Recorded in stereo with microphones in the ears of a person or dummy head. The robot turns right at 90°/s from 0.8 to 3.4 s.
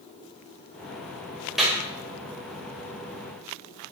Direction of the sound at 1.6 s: Centre (ahead or behind).